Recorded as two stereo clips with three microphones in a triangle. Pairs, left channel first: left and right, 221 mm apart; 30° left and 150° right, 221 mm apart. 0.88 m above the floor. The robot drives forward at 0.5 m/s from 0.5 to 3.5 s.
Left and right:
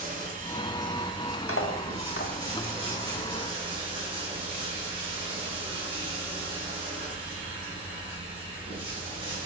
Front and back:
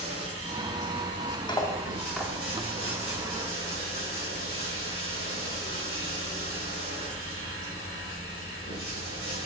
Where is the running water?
145° right, 2 m; by 9.5 s 160° right, 3.5 m.